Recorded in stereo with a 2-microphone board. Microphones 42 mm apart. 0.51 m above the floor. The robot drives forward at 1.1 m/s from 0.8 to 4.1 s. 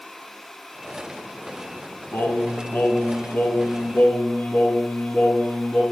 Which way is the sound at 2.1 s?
80° left.